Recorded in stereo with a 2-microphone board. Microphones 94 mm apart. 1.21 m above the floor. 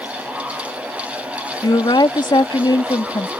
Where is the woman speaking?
50° left (ahead or behind).